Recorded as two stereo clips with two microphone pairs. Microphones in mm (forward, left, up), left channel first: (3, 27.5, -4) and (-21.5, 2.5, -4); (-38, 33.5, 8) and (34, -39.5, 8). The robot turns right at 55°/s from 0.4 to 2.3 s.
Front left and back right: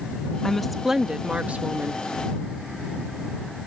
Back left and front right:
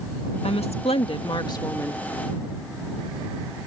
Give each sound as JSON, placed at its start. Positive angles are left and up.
{"t": 0.4, "sound": "a woman speaking", "azimuth_deg": 120}